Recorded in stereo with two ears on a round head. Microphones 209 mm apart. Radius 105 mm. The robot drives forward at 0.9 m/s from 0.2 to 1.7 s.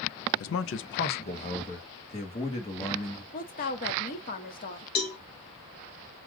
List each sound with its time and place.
0.4 s a man speaking: 55° left (ahead or behind), 0.6 m; by 3.2 s 25° left (ahead or behind), 1.2 m
3.3 s a woman speaking: 40° left (ahead or behind), 1.5 m
5.0 s a cowbell: 40° left (ahead or behind), 1.8 m